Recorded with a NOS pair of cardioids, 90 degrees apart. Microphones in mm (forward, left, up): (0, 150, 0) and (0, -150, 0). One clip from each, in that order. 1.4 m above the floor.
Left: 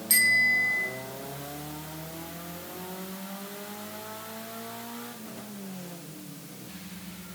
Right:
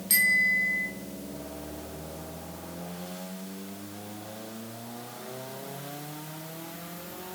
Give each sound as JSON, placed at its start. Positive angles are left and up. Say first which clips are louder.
{"t": 0.1, "sound": "a bicycle bell", "louder": "left 1 dB", "azimuth_deg": 5, "distance_m": 8.5}